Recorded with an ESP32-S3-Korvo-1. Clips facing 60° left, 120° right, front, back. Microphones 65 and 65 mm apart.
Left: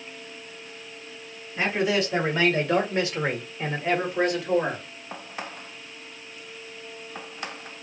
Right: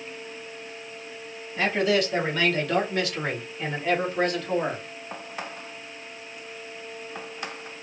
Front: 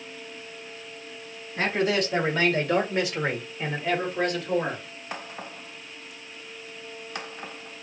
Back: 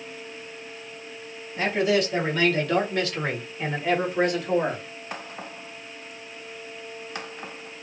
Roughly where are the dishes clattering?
No dishes clattering in this recording.